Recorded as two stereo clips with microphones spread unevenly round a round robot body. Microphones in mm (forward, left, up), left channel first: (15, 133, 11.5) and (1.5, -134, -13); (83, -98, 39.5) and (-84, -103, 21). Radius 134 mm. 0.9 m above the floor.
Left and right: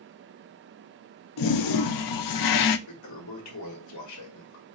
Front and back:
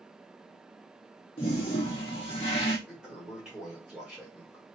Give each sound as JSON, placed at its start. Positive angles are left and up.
{"t": 1.4, "sound": "a toilet flushing", "azimuth_deg": 70, "distance_m": 0.5}
{"t": 2.9, "sound": "a toilet flushing", "azimuth_deg": 100, "distance_m": 1.2}